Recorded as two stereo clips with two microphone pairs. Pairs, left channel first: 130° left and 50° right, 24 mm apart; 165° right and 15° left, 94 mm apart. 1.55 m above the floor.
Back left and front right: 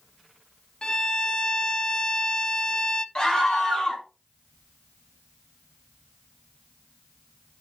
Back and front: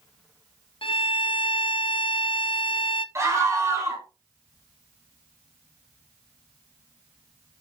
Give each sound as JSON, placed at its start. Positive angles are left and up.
{"t": 0.8, "sound": "a violin", "azimuth_deg": 180, "distance_m": 0.6}
{"t": 3.1, "sound": "a scream", "azimuth_deg": 75, "distance_m": 4.5}